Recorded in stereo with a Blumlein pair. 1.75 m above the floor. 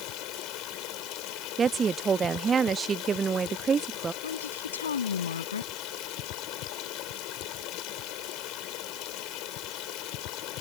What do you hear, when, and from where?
0.0 s running water: 40° left
1.6 s a woman speaking: 20° right
4.2 s a woman speaking: 70° left